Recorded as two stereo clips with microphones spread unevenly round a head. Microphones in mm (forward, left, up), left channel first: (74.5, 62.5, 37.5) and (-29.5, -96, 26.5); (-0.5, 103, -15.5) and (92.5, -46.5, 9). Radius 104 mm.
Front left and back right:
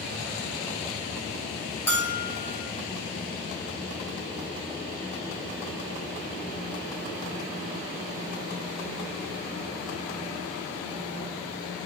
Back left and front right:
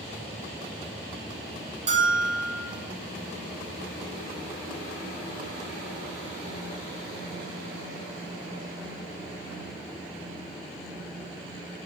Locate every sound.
1.9 s a bell: 20° right, 2 m